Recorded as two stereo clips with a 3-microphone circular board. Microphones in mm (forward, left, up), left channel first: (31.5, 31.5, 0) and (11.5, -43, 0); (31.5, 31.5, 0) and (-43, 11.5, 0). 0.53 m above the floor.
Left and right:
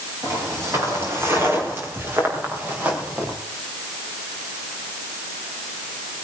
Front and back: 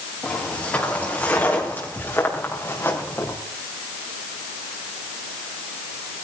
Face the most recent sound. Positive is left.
turn(degrees=-35)